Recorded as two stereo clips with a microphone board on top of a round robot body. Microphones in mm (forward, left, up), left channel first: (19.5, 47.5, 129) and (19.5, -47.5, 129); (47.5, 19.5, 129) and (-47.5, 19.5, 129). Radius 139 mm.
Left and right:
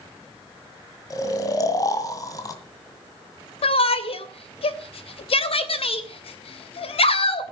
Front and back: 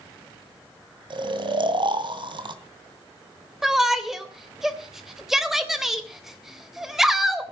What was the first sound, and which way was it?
Snoring, 145° left.